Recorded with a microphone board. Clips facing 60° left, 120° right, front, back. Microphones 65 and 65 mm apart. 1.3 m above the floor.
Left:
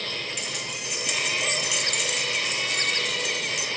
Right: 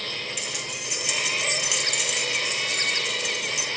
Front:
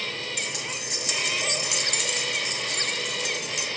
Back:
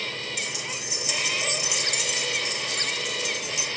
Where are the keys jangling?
35° right, 3 m.